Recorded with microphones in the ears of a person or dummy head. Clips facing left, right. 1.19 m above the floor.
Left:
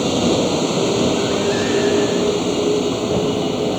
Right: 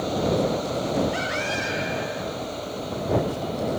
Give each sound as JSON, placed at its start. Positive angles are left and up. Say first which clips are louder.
{"t": 0.0, "sound": "a vehicle", "louder": "left 7 dB", "side_deg": 75}